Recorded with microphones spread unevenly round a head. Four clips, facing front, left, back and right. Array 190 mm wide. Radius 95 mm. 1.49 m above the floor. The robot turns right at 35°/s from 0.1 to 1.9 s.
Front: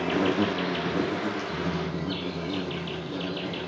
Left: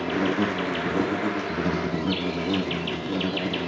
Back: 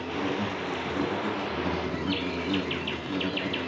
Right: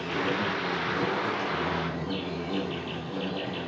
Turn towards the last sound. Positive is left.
turn(degrees=100)